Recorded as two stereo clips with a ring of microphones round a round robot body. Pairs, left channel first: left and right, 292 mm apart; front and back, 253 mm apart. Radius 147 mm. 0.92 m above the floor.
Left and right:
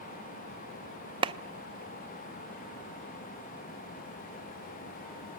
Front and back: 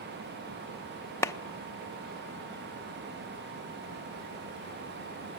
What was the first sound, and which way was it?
A clap, 55° right.